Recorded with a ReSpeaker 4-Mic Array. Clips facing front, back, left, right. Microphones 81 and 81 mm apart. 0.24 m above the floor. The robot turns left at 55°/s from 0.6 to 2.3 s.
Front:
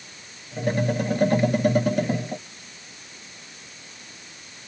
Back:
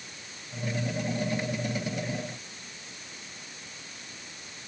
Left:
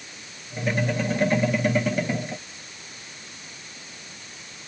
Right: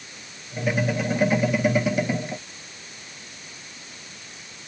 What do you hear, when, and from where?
Only background noise.